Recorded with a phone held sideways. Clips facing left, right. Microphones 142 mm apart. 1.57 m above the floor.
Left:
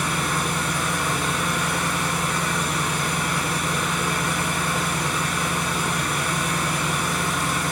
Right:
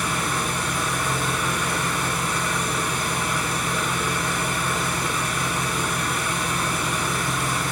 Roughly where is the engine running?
Left.